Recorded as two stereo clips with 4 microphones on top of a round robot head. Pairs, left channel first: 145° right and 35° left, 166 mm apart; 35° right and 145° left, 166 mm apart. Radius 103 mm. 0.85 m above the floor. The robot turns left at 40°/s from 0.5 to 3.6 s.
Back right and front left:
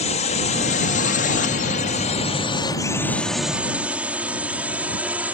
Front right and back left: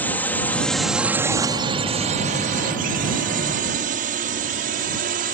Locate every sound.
0.0 s a drone: 115° right; by 5.3 s 115° left